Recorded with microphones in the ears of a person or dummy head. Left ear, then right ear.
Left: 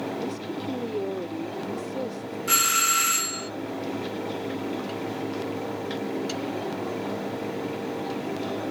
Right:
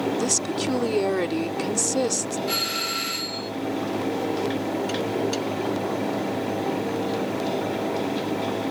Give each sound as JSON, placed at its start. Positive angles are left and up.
{"t": 0.2, "sound": "a woman speaking", "side_deg": -65}
{"t": 2.5, "sound": "a doorbell", "side_deg": 40}